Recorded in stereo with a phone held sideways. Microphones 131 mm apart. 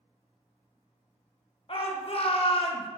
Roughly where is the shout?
Left.